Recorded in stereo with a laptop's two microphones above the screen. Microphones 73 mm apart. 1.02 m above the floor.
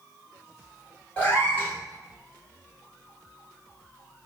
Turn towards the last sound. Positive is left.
turn(degrees=25)  # may be behind; listen again after turning